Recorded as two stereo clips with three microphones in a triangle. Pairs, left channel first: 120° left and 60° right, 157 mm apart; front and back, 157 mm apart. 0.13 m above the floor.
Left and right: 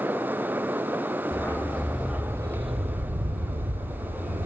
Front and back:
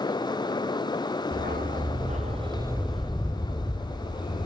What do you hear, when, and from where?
1.3 s a dog barking: 165° right, 2.5 m; by 4.5 s 45° right, 3 m